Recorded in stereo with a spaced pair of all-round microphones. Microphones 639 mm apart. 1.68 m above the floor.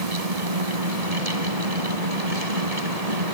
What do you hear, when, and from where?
0.0 s a fan: 70° right (ahead or behind)